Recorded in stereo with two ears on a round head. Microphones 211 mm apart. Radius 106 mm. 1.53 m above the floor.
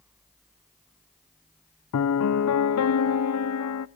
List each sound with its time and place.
1.9 s a piano: 70° left (ahead or behind), 0.6 m